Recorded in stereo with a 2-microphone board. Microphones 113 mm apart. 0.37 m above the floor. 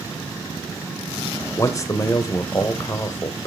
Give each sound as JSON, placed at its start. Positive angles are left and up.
{"t": 1.6, "sound": "a man speaking", "side_deg": 30, "distance_m": 1.0}